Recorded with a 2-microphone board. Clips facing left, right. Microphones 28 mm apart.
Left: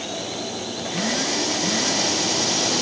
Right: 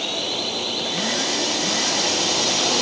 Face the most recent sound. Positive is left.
turn(degrees=-40)  # may be behind; listen again after turning